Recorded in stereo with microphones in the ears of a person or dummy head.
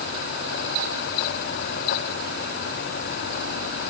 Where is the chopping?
I don't hear chopping.